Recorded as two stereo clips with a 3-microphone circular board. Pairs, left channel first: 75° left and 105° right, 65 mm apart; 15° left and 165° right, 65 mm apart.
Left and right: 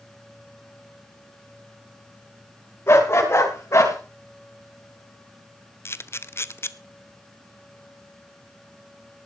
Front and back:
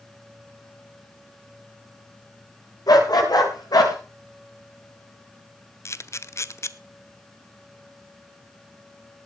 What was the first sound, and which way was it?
A dog barking, 25° left.